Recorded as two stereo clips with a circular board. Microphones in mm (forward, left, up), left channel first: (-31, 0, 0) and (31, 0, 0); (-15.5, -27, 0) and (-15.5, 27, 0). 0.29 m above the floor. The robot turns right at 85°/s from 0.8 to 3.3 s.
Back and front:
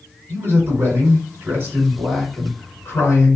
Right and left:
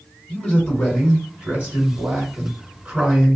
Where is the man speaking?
20° right, 1.5 m; by 3.4 s 170° right, 1.5 m.